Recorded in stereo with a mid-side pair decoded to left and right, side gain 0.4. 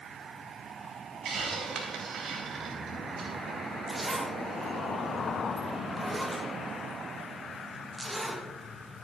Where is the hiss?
65° right, 3 m.